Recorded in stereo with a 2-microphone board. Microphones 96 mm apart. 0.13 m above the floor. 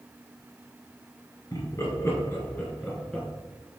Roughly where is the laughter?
Left.